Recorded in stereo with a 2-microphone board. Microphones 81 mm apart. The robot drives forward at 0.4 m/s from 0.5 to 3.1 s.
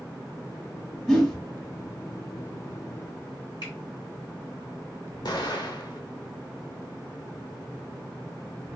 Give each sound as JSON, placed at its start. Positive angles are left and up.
{"t": 1.1, "sound": "a whoosh", "side_deg": 10, "distance_m": 1.3}
{"t": 3.6, "sound": "a finger snap", "side_deg": 70, "distance_m": 1.8}
{"t": 5.2, "sound": "an explosion", "side_deg": 65, "distance_m": 0.9}